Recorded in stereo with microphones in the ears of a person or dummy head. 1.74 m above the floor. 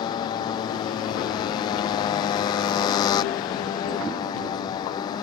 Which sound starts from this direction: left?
A motorcycle, at 0.0 s.